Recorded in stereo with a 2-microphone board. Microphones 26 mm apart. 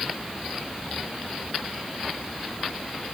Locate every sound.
Only background noise.